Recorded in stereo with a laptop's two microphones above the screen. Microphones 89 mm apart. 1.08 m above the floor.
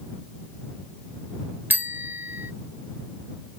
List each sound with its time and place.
1.7 s a bicycle bell: 20° right (ahead or behind)